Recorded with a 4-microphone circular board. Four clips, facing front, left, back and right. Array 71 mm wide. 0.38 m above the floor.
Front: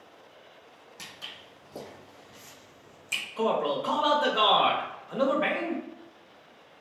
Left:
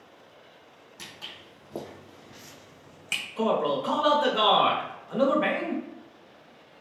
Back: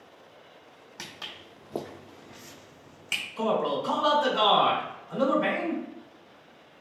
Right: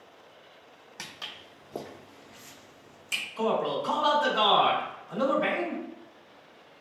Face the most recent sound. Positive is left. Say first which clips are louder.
# left 2 dB, even
turn(degrees=40)